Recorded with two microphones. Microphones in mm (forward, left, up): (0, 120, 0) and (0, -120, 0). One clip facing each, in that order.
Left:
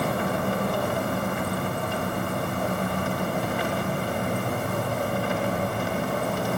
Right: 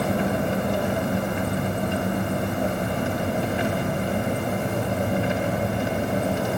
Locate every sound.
0.0 s an engine running: 20° right (ahead or behind), 1.1 m